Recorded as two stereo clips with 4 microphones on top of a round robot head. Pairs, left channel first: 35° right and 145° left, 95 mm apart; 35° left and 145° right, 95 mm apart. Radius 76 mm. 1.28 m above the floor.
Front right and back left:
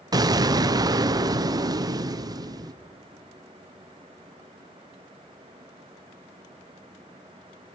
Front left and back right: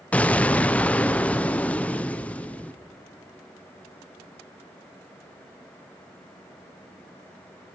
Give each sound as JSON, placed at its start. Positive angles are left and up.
{"t": 0.1, "sound": "an explosion", "azimuth_deg": 110, "distance_m": 0.8}